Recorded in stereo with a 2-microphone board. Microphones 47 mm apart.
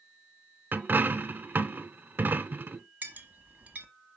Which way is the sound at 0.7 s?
50° right (ahead or behind).